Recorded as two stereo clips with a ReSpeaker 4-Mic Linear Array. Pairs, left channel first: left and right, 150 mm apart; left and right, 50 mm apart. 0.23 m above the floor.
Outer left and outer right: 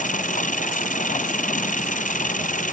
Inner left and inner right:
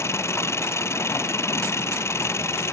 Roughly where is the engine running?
Left.